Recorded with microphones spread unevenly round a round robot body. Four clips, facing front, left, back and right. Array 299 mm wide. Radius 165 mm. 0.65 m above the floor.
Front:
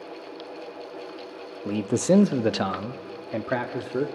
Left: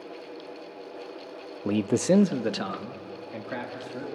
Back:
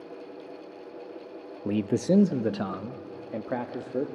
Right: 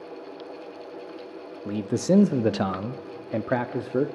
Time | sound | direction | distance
1.6 | a man speaking | 95° left | 0.7 m